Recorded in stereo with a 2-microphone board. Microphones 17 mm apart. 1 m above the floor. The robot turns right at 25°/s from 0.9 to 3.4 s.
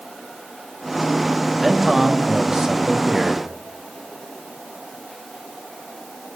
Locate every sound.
1.6 s a man speaking: 170° right, 1.5 m; by 3.5 s 130° right, 1.5 m